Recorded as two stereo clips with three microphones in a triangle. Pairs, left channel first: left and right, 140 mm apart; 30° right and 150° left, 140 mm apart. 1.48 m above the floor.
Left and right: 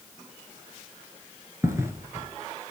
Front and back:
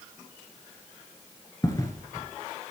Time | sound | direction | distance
1.6 | footsteps | 50° right | 1.6 m